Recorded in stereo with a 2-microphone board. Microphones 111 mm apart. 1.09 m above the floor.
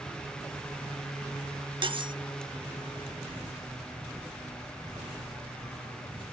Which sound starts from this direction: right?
Cutlery clinking, at 1.8 s.